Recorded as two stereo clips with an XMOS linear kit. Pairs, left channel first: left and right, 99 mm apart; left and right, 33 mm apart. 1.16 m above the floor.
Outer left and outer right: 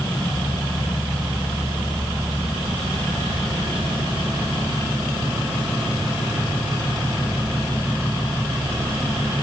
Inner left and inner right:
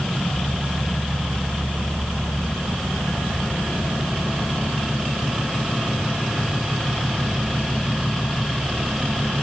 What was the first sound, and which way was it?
Only background noise.